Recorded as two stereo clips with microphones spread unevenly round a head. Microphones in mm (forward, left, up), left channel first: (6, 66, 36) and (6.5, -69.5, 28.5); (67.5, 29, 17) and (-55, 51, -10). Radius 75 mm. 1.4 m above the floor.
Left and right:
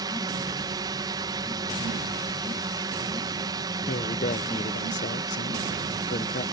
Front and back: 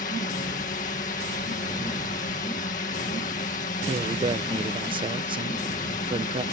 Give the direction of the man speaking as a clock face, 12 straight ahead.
8 o'clock.